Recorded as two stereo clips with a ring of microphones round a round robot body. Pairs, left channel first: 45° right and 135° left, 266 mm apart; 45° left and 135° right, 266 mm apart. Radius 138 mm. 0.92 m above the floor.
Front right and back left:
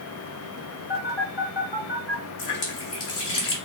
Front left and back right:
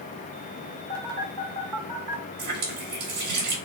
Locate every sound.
0.9 s a phone buzzing: 110° right, 2 m
2.4 s a running tap: 80° right, 2 m